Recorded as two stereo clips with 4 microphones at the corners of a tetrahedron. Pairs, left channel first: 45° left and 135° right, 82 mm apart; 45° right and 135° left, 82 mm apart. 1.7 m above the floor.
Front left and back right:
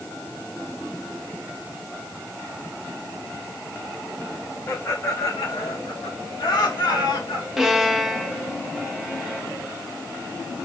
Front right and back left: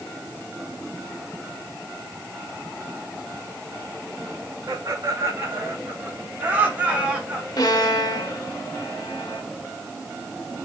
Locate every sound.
4.7 s laughter: 95° left, 1.6 m; by 7.5 s 50° left, 3.5 m
7.6 s a violin: 50° right, 1.3 m